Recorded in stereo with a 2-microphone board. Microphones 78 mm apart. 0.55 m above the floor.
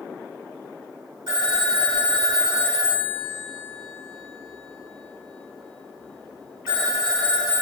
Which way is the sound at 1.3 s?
60° right (ahead or behind).